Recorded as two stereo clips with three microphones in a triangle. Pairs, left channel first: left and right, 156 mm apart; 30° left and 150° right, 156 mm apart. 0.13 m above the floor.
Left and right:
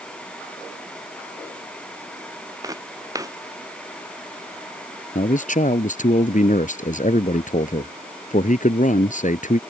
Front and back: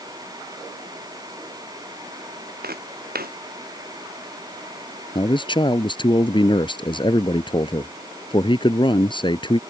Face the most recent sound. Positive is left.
turn(degrees=80)